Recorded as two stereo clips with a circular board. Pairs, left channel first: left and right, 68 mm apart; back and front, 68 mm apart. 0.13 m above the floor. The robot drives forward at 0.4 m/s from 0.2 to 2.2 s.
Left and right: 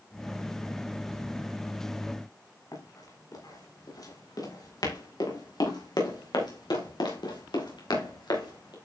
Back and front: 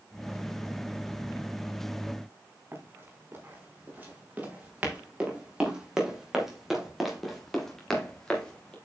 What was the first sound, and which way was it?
Running footsteps, 60° left.